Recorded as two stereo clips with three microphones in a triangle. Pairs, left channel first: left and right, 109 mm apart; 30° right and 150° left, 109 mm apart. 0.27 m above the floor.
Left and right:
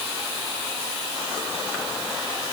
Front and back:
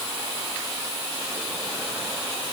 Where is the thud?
No thud in this recording.